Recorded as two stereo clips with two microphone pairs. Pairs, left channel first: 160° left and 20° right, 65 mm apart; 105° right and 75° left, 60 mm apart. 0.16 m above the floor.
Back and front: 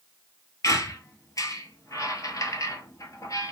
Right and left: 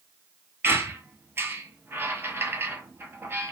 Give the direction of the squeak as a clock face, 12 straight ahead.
8 o'clock.